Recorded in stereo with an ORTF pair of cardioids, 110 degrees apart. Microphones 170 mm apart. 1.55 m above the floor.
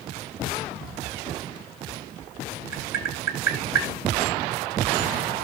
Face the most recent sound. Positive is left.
turn(degrees=-60)